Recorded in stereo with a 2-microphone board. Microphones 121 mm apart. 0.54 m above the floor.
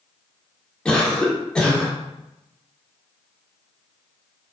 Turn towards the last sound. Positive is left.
turn(degrees=5)  # may be behind; listen again after turning